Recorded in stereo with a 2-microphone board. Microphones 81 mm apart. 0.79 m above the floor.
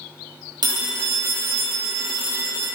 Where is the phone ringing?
60° right (ahead or behind), 0.7 m.